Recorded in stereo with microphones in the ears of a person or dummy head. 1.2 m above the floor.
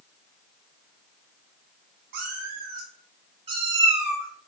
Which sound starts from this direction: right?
A cat meowing, at 2.1 s.